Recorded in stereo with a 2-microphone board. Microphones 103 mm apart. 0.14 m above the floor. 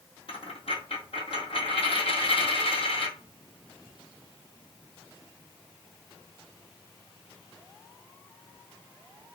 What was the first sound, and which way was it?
A dropped coin, 75° left (ahead or behind).